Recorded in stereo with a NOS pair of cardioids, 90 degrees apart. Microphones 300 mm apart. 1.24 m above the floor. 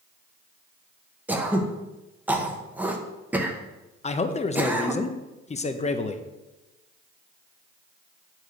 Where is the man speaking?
25° left, 0.6 m.